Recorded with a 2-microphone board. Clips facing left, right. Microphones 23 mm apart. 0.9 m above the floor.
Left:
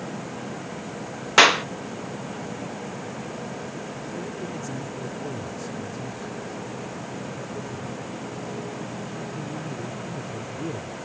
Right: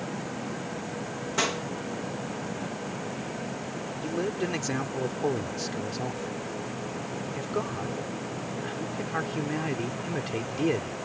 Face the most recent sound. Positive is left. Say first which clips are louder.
# right 7 dB
turn(degrees=-60)  # may be behind; listen again after turning